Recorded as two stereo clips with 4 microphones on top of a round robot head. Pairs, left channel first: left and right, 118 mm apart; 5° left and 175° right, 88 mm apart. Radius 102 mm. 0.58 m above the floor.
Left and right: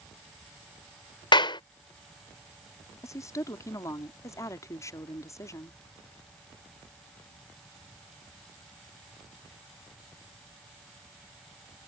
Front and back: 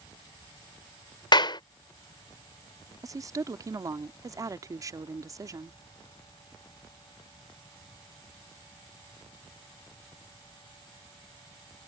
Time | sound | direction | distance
1.3 | a clap | 40° left | ?
3.0 | a woman speaking | 150° left | ?